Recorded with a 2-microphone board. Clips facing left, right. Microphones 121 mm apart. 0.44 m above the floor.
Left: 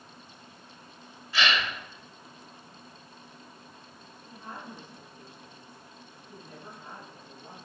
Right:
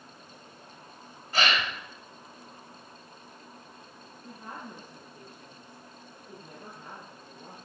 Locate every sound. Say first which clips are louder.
1.3 s a gasp: even; 45° right (ahead or behind), 2.5 m
4.2 s a woman speaking: even; 45° right (ahead or behind), 7 m